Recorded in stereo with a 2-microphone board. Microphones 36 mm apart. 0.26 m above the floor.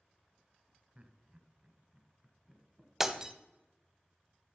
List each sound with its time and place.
0.9 s laughter: 35° right (ahead or behind), 1.4 m; by 2.9 s 5° right (ahead or behind), 2.5 m
3.0 s breaking glass: 10° right (ahead or behind), 0.8 m